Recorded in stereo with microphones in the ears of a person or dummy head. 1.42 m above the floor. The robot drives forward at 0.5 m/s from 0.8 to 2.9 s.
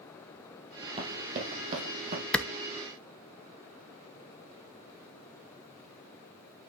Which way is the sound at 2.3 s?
5° left (ahead or behind).